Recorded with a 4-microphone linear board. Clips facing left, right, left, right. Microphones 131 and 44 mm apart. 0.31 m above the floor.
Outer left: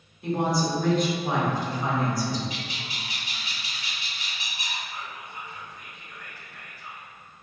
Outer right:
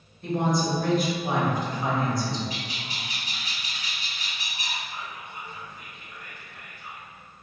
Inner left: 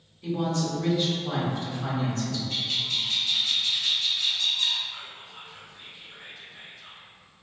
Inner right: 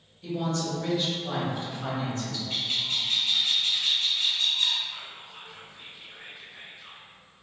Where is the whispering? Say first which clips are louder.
Even, even; 25° right (ahead or behind), 0.9 m.